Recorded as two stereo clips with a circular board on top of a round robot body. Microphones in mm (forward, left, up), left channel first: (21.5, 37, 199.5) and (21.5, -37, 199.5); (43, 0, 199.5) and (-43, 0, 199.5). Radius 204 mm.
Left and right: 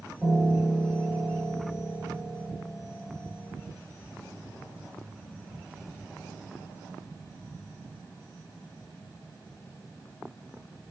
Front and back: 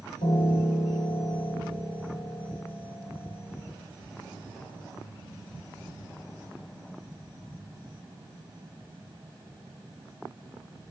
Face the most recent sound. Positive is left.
turn(degrees=5)